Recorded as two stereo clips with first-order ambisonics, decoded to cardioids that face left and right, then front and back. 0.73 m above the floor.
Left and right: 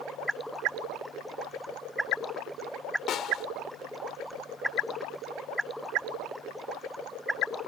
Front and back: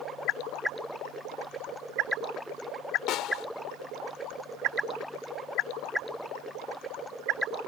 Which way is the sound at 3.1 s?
40° left.